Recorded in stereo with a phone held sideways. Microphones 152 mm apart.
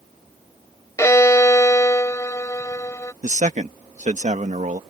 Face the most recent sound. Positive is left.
turn(degrees=-55)  # may be behind; listen again after turning